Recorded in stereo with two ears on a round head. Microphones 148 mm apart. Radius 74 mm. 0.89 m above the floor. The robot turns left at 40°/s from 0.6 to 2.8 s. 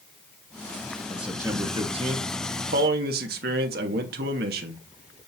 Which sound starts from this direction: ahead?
A man speaking, at 1.1 s.